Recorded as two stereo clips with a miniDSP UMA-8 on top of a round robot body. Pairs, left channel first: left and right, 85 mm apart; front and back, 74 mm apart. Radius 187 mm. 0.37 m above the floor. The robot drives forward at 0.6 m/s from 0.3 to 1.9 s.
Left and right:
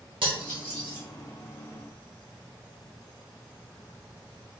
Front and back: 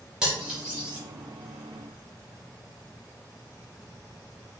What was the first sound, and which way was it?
Cutlery clinking, 100° right.